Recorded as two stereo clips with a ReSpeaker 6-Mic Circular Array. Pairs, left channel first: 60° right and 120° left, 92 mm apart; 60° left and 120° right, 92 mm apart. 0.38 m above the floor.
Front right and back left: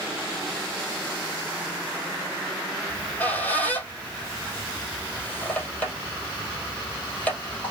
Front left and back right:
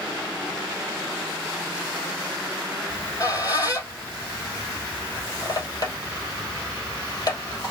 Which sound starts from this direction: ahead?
A squeak, at 2.9 s.